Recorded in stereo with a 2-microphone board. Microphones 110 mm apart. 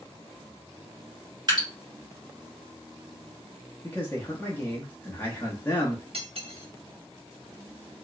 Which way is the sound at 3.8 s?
20° left (ahead or behind).